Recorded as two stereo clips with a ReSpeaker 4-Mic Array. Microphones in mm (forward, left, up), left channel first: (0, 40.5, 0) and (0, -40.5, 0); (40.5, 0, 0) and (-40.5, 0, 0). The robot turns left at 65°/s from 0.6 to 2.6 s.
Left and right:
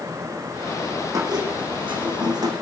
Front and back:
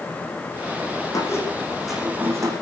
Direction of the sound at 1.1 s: 45° right.